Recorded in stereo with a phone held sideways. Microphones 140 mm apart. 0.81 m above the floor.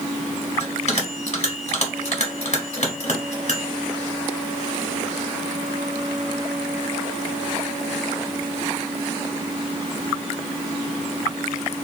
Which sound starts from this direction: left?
A bell, at 0.6 s.